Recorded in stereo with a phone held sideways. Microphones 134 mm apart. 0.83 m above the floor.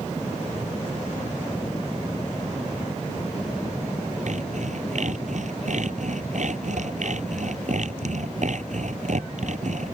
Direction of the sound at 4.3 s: 65° right (ahead or behind).